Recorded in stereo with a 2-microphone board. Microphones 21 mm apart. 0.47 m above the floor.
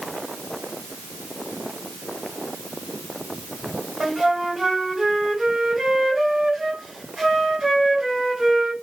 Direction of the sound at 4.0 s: 35° right (ahead or behind).